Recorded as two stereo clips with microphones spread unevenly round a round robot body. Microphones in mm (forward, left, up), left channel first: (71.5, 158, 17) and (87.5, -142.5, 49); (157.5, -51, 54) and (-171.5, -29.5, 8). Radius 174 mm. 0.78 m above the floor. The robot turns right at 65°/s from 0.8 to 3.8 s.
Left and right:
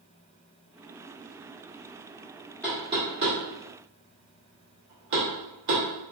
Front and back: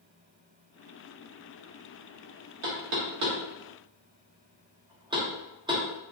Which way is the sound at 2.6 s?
175° left.